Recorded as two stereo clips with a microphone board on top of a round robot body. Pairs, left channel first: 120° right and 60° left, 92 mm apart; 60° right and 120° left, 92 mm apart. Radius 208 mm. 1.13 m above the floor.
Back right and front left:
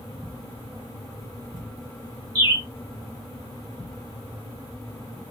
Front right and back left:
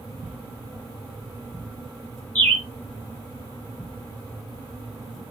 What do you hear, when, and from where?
2.4 s a bird: 15° left, 2.5 m